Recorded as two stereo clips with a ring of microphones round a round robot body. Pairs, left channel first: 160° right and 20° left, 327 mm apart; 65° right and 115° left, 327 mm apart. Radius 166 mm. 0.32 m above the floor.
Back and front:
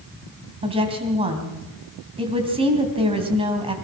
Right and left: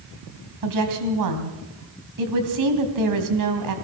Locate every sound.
0.6 s a woman speaking: 95° left, 3 m